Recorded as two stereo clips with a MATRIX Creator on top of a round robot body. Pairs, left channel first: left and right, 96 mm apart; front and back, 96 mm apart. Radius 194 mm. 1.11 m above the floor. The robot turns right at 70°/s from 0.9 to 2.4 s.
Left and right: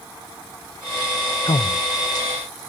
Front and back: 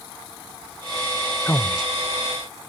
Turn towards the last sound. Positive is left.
turn(degrees=130)